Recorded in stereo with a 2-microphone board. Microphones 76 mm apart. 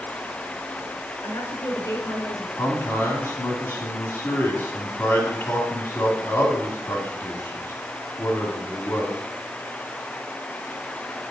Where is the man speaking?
40° left (ahead or behind), 1.8 m.